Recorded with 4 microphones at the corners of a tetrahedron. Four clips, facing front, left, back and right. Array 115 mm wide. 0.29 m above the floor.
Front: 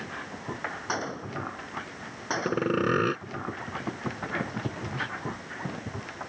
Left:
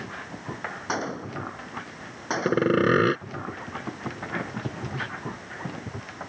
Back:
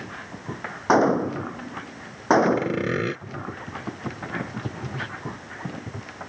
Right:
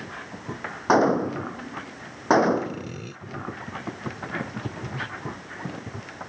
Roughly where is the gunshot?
Behind right.